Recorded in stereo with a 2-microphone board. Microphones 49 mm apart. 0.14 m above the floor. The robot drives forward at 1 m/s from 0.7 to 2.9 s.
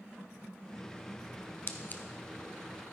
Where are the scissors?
50° left (ahead or behind), 0.7 m; by 2.0 s 35° left (ahead or behind), 0.9 m.